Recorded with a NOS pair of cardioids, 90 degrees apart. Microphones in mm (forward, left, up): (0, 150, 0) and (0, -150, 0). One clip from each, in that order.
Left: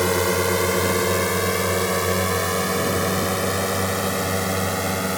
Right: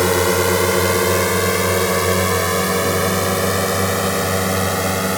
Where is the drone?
35° right; by 5.2 s 40° right.